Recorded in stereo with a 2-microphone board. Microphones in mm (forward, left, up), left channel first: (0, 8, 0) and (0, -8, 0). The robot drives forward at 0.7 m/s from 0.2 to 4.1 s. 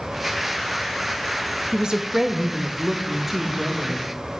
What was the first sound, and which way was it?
A woman speaking, 50° right (ahead or behind).